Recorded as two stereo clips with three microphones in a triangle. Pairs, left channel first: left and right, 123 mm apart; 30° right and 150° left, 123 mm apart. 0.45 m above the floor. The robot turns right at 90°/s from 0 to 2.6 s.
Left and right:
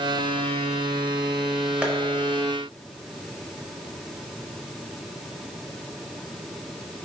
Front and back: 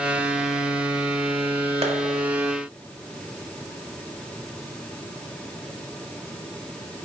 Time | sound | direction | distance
1.8 | tapping | 170° right | 0.6 m